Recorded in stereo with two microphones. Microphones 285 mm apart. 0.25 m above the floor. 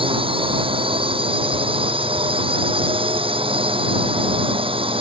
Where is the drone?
20° right (ahead or behind).